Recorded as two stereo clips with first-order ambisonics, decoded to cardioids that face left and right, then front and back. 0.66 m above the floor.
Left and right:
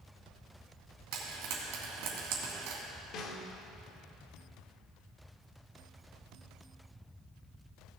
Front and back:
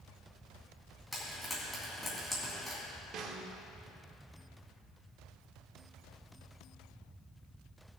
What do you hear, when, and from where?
1.1 s frying: 90° right, 2.5 m
3.1 s a snare drum: 135° left, 1.0 m